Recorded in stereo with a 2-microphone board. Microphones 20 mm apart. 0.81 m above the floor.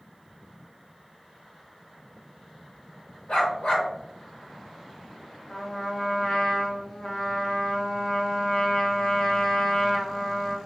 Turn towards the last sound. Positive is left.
turn(degrees=55)  # may be behind; listen again after turning